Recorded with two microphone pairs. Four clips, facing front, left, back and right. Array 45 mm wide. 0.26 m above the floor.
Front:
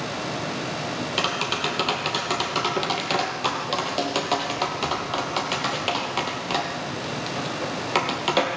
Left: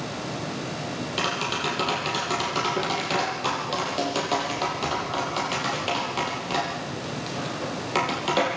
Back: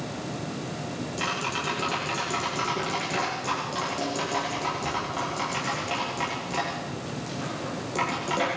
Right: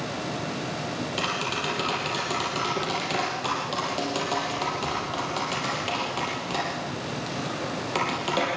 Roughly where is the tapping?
Ahead.